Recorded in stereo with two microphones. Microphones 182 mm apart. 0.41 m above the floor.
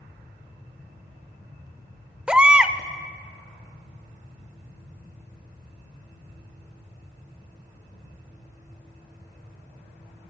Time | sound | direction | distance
2.3 | a baby crying | 5° right (ahead or behind) | 0.7 m